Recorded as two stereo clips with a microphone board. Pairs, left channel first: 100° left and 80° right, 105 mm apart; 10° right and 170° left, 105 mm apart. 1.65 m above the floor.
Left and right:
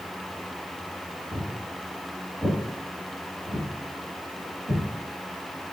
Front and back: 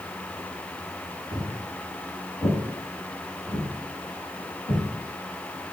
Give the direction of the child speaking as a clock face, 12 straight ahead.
No child speaking in this recording.